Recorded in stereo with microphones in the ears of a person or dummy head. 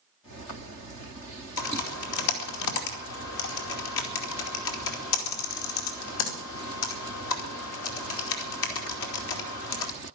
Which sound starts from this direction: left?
Typing on a keyboard, at 1.6 s.